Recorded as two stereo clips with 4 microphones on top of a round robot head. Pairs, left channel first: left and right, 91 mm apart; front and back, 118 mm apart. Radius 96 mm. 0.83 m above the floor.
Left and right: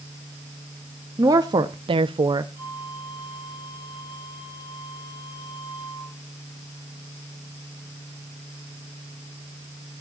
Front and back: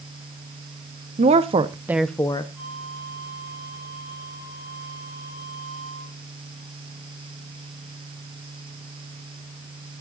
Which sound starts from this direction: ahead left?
A flute, at 2.5 s.